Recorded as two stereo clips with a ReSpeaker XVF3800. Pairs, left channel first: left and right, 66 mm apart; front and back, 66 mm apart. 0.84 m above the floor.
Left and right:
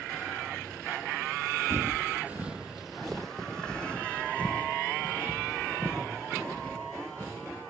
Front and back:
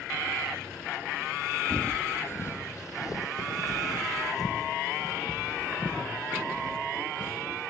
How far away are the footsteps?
About 1.1 m.